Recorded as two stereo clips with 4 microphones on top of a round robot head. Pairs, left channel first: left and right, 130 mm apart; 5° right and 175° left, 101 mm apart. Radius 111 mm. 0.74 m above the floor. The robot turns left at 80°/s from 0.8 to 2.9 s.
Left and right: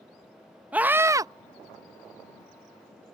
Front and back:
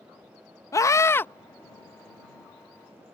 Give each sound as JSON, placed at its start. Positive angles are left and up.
{"t": 0.7, "sound": "a scream", "azimuth_deg": -20}